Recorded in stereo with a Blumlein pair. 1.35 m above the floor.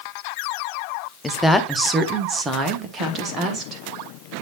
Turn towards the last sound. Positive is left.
turn(degrees=-30)